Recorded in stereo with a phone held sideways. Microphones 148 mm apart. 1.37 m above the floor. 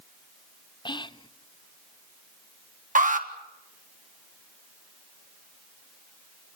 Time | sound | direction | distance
0.8 | whispering | 30° left (ahead or behind) | 0.6 m
3.0 | an alarm | 60° right (ahead or behind) | 1.5 m